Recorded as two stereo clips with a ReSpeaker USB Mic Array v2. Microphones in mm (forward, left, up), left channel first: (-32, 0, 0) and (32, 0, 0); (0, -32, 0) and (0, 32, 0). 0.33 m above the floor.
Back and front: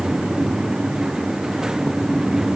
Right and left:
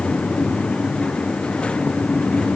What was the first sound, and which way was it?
Only background noise.